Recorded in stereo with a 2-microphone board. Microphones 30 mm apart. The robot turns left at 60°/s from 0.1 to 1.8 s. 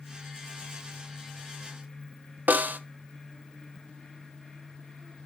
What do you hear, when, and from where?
2.5 s a snare drum: 70° right (ahead or behind), 0.6 m